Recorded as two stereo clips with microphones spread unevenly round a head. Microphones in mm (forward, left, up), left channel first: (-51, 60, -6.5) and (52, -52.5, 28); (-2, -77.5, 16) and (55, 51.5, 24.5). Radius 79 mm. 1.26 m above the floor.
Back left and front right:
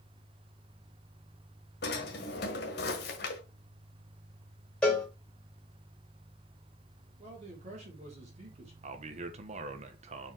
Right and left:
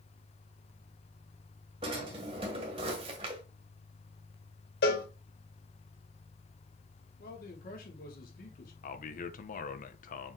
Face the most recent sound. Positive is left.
turn(degrees=-100)